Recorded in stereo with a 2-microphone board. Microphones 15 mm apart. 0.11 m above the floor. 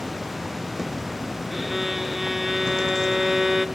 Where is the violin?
20° right (ahead or behind), 1.2 m.